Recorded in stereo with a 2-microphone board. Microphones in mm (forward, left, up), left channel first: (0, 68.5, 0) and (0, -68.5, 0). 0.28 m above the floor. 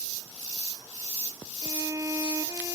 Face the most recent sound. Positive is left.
turn(degrees=-25)  # may be behind; listen again after turning